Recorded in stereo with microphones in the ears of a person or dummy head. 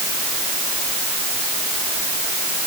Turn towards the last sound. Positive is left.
No sound to turn to.